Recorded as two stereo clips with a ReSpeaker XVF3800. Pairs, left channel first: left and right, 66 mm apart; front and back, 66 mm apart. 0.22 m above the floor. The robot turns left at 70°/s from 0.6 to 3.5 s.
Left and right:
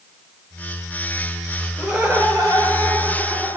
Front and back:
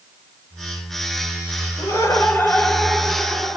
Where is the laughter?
15° right, 4 m; by 3.6 s 135° right, 4 m.